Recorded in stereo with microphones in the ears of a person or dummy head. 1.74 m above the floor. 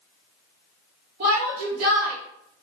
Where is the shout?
55° right (ahead or behind), 3 m.